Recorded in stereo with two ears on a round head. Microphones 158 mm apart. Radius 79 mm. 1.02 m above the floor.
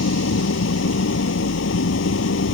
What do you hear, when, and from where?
0.0 s an engine running: 80° left